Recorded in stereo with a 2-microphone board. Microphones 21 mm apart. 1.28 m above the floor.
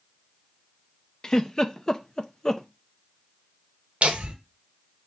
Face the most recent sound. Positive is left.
turn(degrees=-75)  # may be behind; listen again after turning